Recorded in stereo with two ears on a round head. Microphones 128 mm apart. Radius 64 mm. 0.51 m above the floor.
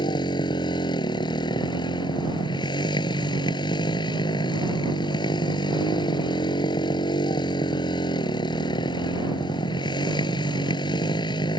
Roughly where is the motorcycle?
Left.